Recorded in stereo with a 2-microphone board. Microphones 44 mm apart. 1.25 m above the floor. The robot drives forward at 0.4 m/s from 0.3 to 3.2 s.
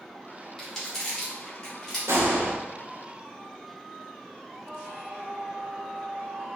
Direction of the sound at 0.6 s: 15° left (ahead or behind).